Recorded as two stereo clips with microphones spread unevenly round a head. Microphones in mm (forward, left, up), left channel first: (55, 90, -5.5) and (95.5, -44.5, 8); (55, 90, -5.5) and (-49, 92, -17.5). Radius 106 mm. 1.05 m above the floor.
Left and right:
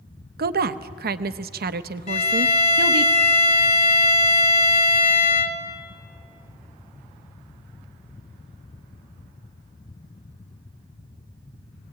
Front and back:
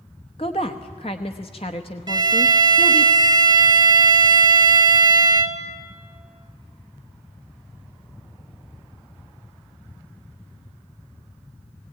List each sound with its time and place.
0.4 s a woman speaking: 65° right, 0.8 m
2.1 s a violin: 145° left, 1.2 m